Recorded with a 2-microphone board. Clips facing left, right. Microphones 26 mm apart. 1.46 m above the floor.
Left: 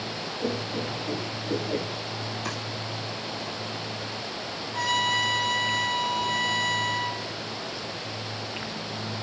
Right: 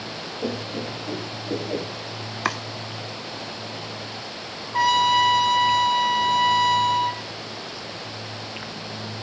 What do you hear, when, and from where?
0.4 s laughter: 20° right (ahead or behind), 4 m; by 1.9 s 10° right (ahead or behind), 3.5 m
2.5 s chopping: 60° right (ahead or behind), 2.0 m
4.7 s a trumpet: 45° right (ahead or behind), 4 m